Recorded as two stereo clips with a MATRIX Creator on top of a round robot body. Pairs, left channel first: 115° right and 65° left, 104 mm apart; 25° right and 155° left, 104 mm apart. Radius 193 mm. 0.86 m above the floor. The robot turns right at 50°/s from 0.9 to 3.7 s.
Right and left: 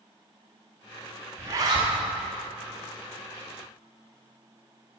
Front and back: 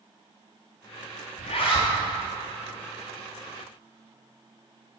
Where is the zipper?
Straight ahead, 0.8 m; by 1.9 s 30° left, 0.8 m.